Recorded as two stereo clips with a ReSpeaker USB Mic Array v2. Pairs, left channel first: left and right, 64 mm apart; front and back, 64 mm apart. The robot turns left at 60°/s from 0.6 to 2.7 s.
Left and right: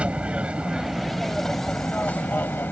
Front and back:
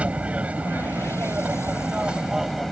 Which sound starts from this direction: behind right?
An aircraft, at 0.0 s.